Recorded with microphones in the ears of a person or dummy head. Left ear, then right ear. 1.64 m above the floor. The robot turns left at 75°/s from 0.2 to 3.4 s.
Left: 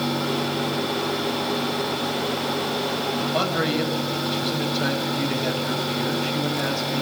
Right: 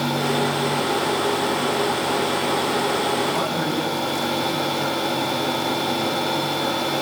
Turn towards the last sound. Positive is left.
turn(degrees=45)  # may be behind; listen again after turning